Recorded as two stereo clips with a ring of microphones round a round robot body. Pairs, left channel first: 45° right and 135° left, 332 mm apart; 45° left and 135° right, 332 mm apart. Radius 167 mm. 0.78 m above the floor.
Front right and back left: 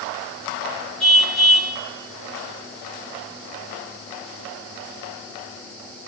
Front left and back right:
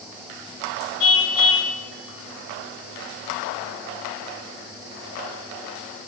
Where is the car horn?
45° left, 2.5 m.